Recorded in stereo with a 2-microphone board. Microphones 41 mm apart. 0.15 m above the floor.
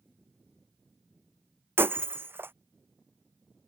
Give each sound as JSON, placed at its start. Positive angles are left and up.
{"t": 1.8, "sound": "breaking glass", "side_deg": -70}